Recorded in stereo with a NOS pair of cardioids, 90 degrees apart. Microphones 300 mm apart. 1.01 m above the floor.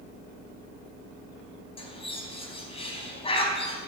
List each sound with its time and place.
1.8 s a bird: 20° left, 4 m